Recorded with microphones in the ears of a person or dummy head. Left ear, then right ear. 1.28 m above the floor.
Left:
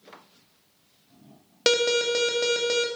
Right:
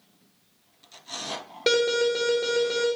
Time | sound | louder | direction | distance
1.7 | an alarm | even | 50° left (ahead or behind) | 1.3 m